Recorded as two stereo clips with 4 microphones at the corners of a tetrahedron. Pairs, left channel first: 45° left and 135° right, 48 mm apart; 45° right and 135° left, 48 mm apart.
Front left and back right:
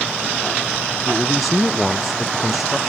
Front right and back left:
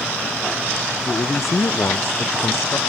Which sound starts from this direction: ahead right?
A man speaking, at 1.1 s.